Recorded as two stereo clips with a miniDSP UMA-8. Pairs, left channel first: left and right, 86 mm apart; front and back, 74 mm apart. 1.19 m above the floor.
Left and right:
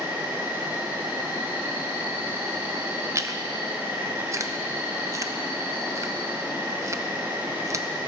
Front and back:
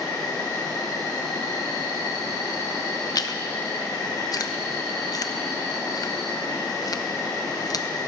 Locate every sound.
0.0 s an insect: 30° right, 5.5 m
3.1 s chewing: 35° right, 0.6 m